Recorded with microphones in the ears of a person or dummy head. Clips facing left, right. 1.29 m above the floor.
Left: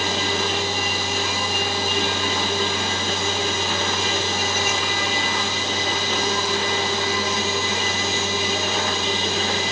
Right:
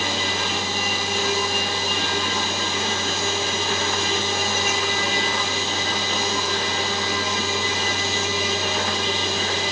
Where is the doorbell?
I don't hear a doorbell.